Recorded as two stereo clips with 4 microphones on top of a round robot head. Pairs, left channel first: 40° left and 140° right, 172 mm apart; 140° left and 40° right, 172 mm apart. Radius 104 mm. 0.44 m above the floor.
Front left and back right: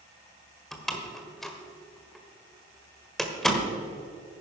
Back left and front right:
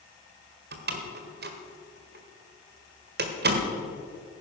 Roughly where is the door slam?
Ahead right.